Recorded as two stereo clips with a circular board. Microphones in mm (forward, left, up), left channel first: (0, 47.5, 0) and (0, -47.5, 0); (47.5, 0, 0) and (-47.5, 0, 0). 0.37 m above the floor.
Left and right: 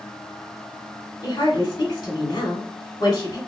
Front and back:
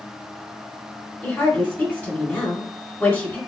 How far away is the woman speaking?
About 1.5 m.